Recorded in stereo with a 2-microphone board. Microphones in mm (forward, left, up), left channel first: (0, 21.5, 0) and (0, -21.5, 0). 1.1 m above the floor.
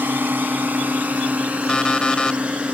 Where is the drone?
50° right (ahead or behind); by 2.7 s 30° right (ahead or behind).